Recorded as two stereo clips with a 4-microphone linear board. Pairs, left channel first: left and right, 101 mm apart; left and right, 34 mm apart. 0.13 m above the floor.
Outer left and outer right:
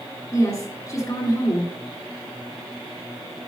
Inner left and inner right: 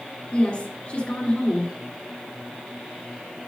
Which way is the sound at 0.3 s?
35° left (ahead or behind).